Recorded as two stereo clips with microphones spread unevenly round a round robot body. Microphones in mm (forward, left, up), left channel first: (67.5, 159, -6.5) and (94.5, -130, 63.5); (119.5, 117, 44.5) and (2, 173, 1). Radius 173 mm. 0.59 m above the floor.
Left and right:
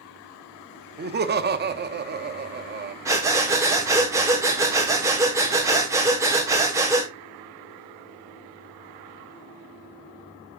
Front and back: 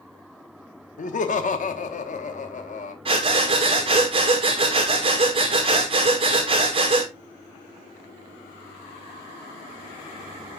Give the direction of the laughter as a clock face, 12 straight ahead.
1 o'clock.